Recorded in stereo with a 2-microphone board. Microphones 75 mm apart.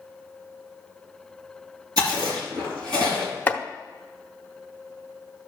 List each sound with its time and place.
2.0 s chewing: 60° right (ahead or behind), 3 m
3.5 s chopping: 25° left (ahead or behind), 0.8 m